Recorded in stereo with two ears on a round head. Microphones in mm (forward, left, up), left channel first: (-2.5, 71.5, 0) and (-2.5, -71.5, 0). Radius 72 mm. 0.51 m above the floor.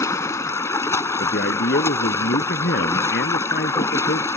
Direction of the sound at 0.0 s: 20° left (ahead or behind).